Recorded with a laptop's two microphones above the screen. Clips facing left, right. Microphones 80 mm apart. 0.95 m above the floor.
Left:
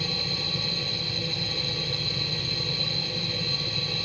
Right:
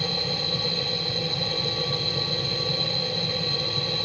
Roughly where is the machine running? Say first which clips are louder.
Right 4 dB; right.